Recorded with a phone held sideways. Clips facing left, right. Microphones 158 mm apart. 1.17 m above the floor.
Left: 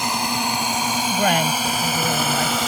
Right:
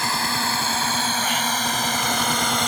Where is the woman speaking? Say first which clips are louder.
Left 6 dB; 60° left (ahead or behind).